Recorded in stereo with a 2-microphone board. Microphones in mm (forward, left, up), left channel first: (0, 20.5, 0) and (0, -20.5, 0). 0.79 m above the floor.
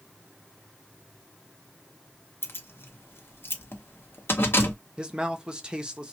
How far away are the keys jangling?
About 0.9 m.